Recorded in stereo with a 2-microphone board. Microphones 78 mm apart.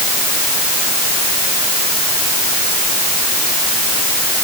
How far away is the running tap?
I don't hear a running tap.